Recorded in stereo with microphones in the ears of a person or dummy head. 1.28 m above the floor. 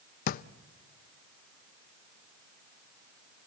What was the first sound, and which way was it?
A drawer, 50° left (ahead or behind).